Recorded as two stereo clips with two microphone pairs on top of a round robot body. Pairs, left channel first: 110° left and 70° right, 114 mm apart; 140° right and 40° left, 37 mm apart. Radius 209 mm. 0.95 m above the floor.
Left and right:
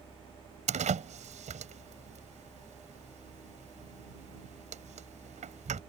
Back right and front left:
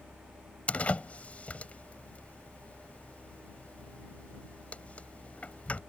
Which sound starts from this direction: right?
A door slam, at 0.7 s.